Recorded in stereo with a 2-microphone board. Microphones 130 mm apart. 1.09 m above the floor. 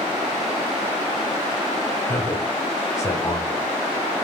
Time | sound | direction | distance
2.1 | a man speaking | 20° left (ahead or behind) | 0.8 m